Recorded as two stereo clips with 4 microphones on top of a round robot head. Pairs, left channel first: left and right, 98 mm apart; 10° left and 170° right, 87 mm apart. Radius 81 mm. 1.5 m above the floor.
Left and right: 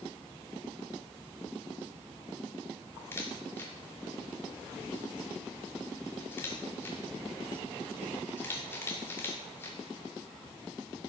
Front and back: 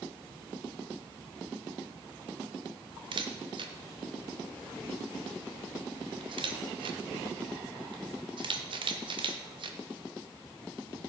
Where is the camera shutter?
160° left, 1.5 m.